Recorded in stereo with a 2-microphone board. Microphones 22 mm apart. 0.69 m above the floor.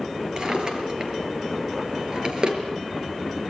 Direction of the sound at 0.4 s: 40° right (ahead or behind).